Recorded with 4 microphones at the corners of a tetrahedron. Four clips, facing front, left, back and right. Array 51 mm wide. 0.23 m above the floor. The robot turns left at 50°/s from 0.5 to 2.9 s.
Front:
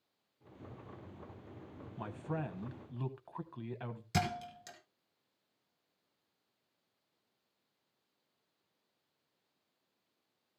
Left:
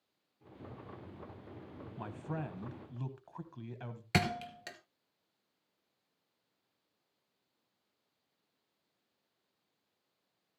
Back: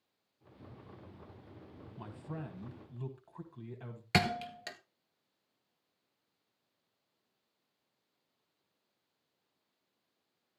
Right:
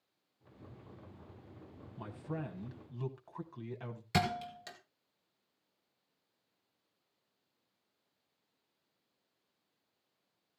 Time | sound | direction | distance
2.0 | a man speaking | 55° left | 1.2 m
4.1 | a thud | 150° left | 1.5 m